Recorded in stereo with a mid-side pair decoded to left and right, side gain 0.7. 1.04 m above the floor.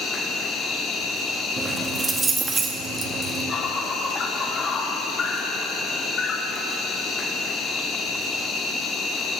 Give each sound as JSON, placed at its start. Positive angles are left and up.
{"t": 0.0, "sound": "an insect", "azimuth_deg": 35, "distance_m": 1.1}
{"t": 1.6, "sound": "keys jangling", "azimuth_deg": -20, "distance_m": 0.9}